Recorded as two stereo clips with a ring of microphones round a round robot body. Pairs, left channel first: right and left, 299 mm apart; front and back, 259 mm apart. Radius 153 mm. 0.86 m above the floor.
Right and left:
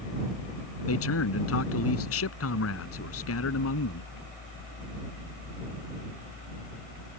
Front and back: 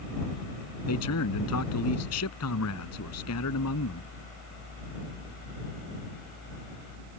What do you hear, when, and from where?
0.9 s a man speaking: 45° right